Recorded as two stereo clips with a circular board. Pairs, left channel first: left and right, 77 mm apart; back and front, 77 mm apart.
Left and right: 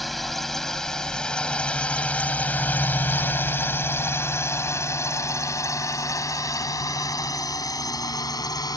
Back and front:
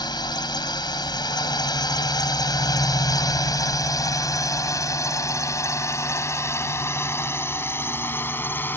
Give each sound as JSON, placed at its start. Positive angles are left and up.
{"t": 0.0, "sound": "a drone", "azimuth_deg": 180}